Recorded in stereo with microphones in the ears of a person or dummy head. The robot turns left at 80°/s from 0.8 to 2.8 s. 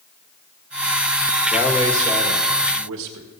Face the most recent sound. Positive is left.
turn(degrees=-95)